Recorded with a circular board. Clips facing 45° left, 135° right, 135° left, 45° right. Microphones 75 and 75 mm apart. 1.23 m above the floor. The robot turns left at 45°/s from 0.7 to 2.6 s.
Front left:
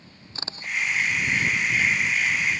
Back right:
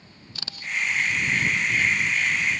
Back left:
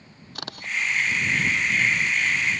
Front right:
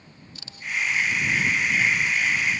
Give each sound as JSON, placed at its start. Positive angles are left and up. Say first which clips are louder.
{"t": 0.3, "sound": "a camera shutter", "louder": "front left 1 dB, back left 2 dB", "azimuth_deg": 105}